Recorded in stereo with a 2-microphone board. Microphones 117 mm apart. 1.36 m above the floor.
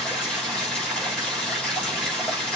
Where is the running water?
10° left (ahead or behind), 5.5 m.